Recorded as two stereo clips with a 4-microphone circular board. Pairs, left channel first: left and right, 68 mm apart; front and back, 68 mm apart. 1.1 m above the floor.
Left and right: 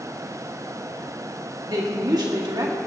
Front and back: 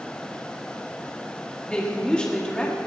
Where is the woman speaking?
75° right, 2.0 m.